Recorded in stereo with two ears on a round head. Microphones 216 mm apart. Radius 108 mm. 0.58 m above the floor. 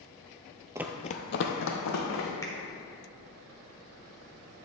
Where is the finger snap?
15° left (ahead or behind), 1.2 m.